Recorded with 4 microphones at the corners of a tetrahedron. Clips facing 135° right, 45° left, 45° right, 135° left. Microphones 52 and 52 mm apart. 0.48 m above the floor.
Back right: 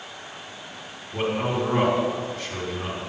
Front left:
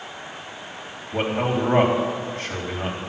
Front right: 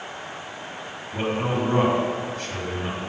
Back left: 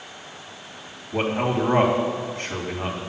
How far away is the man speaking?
About 3 m.